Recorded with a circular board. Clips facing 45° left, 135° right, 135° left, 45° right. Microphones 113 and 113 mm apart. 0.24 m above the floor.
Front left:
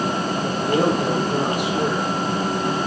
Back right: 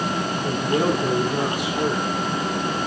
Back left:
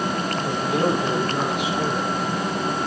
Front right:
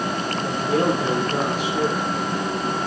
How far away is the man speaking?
About 7 m.